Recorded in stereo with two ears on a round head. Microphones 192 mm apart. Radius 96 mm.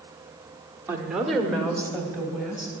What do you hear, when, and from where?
0.9 s a woman speaking: 15° right (ahead or behind), 0.9 m; by 2.7 s 15° left (ahead or behind), 2.5 m